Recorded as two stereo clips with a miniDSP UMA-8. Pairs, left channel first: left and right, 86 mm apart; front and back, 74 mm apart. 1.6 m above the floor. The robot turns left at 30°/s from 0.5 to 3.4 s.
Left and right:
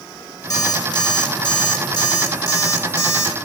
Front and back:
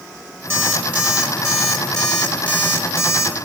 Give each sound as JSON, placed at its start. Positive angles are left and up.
{"t": 0.5, "sound": "an alarm clock", "azimuth_deg": 130, "distance_m": 2.0}